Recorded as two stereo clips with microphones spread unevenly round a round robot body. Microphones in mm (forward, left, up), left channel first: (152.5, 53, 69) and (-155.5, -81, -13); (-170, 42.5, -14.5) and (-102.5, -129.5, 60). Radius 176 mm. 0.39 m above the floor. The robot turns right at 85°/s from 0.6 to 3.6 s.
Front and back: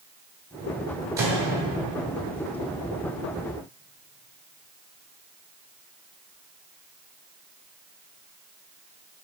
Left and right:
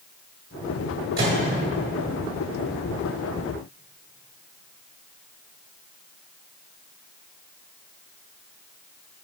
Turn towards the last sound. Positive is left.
turn(degrees=125)